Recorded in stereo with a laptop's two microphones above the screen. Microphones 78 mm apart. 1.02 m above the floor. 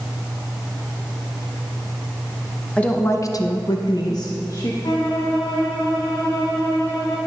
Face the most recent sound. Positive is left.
turn(degrees=70)  # may be behind; listen again after turning